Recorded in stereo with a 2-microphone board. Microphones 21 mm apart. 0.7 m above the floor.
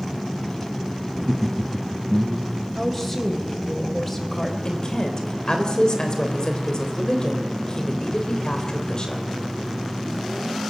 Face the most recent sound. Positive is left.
turn(degrees=35)  # may be behind; listen again after turning